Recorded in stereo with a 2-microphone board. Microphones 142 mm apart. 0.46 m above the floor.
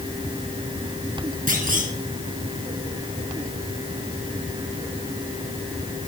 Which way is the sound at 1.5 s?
75° right (ahead or behind).